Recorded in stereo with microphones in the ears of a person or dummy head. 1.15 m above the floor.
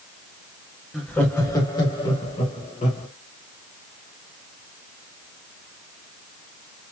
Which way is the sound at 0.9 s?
5° left (ahead or behind).